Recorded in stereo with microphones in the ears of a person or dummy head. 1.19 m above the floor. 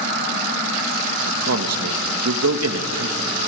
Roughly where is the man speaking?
Right.